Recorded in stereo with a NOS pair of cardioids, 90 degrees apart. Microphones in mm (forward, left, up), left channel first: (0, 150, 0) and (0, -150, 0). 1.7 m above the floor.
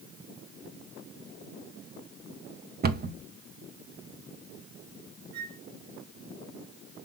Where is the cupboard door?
30° right, 0.9 m.